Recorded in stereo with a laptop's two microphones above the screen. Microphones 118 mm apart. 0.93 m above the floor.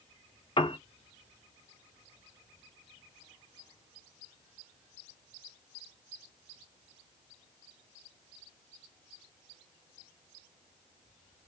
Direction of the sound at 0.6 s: 45° left (ahead or behind).